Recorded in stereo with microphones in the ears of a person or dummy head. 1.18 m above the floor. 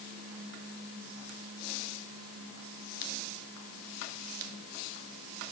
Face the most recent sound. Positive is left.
No sound to turn to.